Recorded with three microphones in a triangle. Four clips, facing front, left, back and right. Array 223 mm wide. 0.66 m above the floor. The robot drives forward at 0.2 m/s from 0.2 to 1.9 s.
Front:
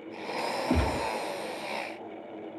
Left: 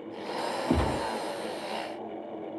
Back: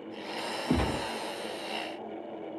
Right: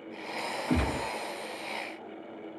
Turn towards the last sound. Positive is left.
turn(degrees=140)